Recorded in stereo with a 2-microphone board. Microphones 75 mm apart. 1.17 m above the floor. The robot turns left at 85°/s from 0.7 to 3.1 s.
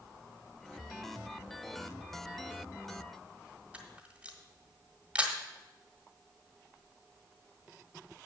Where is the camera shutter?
15° right (ahead or behind), 1.4 m.